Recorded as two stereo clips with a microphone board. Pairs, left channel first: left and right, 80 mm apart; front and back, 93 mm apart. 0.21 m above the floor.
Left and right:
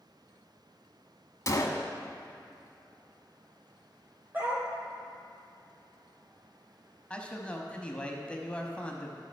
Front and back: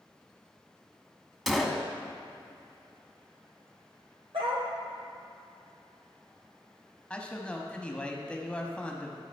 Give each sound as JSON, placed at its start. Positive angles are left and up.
{"t": 1.5, "sound": "a gunshot", "azimuth_deg": 90, "distance_m": 0.8}
{"t": 4.3, "sound": "a dog barking", "azimuth_deg": -155, "distance_m": 1.9}
{"t": 7.1, "sound": "a man speaking", "azimuth_deg": 50, "distance_m": 1.0}